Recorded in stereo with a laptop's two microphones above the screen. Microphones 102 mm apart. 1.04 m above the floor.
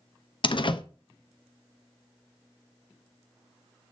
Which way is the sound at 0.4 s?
50° left (ahead or behind).